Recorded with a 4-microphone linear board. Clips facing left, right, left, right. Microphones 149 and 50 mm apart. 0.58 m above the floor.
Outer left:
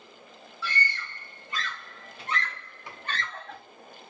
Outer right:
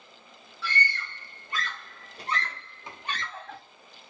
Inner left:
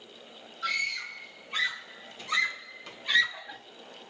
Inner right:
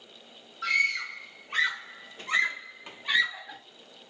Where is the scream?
65° right (ahead or behind), 1.7 m; by 3.6 s centre (ahead or behind), 0.9 m.